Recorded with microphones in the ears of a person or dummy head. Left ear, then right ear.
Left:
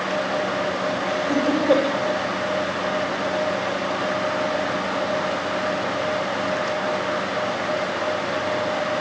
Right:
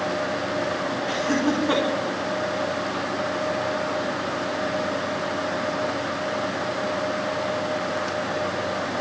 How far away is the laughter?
About 4.5 m.